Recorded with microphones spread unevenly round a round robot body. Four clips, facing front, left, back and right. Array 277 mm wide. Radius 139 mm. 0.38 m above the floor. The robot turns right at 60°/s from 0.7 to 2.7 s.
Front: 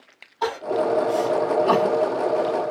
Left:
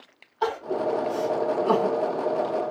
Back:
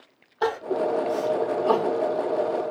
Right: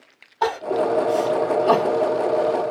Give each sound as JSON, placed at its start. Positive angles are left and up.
{"t": 0.4, "sound": "crying", "azimuth_deg": -130, "distance_m": 1.7}